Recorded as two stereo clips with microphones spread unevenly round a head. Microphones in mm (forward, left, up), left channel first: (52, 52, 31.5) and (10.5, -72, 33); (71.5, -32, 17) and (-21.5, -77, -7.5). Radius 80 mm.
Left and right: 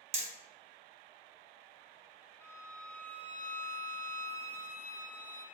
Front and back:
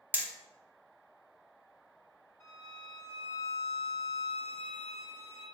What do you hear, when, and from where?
0.1 s hammering: 75° right, 0.9 m
2.4 s a violin: 15° left, 1.3 m